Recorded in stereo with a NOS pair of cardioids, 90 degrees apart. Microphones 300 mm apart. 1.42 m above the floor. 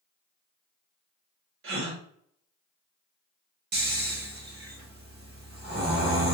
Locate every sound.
1.6 s a gasp: 50° right, 0.9 m
3.7 s snoring: 35° right, 1.0 m